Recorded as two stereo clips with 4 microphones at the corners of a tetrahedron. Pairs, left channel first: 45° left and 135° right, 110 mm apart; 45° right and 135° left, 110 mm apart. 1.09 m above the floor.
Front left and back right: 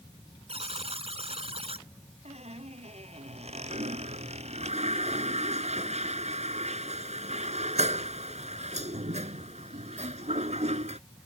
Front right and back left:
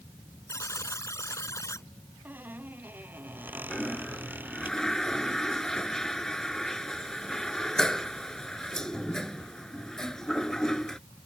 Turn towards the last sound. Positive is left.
turn(degrees=-130)